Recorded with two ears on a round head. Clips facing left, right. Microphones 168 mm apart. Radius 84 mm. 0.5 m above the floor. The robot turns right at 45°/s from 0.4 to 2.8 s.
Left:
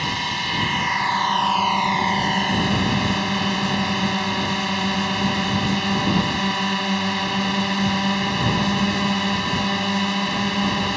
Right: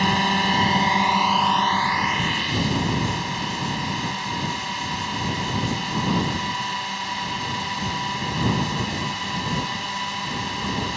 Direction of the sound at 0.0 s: 50° right.